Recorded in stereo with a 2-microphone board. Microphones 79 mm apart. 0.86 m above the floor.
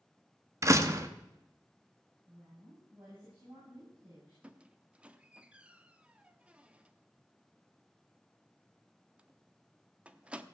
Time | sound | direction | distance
0.6 | a door slam | 40° right (ahead or behind) | 1.0 m
2.3 | a woman speaking | 75° right (ahead or behind) | 7 m
4.4 | a squeak | 15° right (ahead or behind) | 0.7 m